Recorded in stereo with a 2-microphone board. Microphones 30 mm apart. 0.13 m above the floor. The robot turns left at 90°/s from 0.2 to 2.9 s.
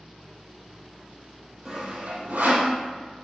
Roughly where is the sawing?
Centre.